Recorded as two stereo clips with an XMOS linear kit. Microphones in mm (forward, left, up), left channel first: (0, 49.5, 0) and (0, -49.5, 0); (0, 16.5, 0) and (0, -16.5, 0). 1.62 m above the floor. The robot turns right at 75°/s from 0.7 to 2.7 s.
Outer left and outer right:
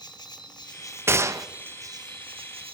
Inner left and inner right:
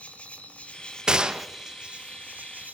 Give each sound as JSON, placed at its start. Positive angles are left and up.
{"t": 0.0, "sound": "an insect", "azimuth_deg": 130, "distance_m": 1.9}
{"t": 1.1, "sound": "a gunshot", "side_deg": -25, "distance_m": 0.9}